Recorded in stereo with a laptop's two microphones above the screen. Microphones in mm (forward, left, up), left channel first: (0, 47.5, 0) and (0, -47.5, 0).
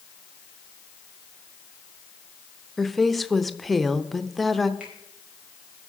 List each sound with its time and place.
2.8 s a woman speaking: centre (ahead or behind), 0.6 m
4.8 s a finger snap: 10° right (ahead or behind), 5 m